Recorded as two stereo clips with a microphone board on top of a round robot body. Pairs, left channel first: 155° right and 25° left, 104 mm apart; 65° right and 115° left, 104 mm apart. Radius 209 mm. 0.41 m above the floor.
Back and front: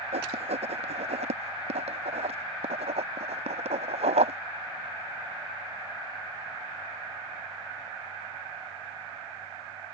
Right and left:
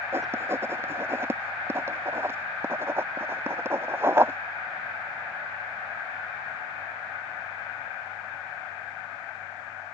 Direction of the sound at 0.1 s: 45° left.